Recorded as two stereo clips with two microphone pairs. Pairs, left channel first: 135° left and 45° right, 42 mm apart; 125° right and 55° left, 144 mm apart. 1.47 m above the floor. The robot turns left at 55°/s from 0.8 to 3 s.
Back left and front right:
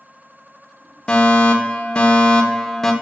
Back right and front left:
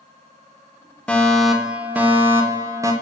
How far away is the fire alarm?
About 1.1 m.